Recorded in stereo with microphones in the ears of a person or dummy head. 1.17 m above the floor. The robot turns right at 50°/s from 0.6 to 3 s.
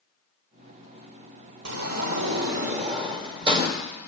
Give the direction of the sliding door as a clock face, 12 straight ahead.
3 o'clock.